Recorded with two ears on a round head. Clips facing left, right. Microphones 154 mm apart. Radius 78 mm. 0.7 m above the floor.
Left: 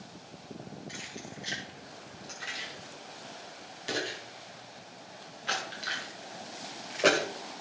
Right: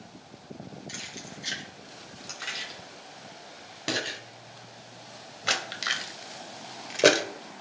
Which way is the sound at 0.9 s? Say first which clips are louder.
Even; 60° right (ahead or behind).